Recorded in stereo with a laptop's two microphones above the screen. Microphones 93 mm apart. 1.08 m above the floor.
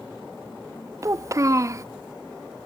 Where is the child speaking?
35° right (ahead or behind), 0.5 m.